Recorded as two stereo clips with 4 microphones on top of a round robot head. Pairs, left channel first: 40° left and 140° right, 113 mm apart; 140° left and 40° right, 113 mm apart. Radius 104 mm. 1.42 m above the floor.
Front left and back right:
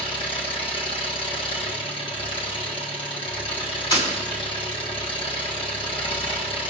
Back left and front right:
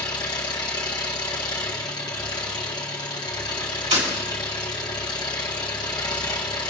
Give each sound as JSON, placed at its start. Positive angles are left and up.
{"t": 0.0, "sound": "an engine running", "azimuth_deg": 85, "distance_m": 1.8}
{"t": 3.9, "sound": "breaking glass", "azimuth_deg": -15, "distance_m": 4.5}